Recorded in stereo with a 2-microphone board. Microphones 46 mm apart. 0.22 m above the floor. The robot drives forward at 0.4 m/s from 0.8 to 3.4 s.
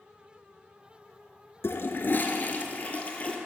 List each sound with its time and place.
1.6 s a toilet flushing: 65° left (ahead or behind), 0.6 m; by 3.4 s 30° left (ahead or behind), 1.1 m